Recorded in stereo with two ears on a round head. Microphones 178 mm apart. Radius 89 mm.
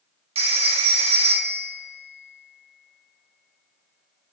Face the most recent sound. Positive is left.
turn(degrees=-30)  # may be behind; listen again after turning